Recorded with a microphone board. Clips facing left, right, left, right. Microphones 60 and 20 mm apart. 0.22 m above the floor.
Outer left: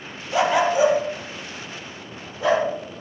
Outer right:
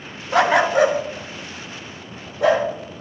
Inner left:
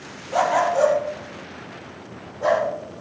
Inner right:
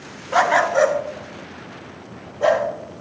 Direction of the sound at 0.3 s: 70° right (ahead or behind).